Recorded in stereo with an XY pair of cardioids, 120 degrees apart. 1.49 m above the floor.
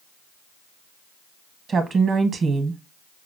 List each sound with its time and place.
1.7 s a woman speaking: 40° right, 1.2 m